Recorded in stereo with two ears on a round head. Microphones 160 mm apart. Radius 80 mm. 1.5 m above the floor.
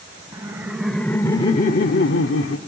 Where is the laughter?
25° right (ahead or behind), 0.8 m; by 2.6 s 80° left, 0.8 m.